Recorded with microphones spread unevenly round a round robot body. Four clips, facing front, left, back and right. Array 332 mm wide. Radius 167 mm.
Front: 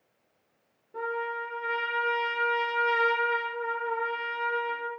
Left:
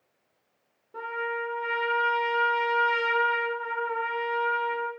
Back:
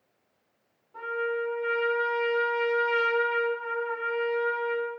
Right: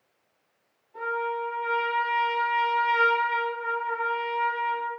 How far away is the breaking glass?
I don't hear breaking glass.